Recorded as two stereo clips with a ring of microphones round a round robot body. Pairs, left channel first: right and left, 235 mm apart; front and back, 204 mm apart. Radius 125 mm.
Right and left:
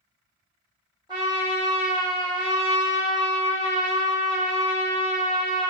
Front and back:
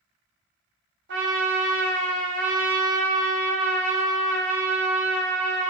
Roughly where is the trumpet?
Behind.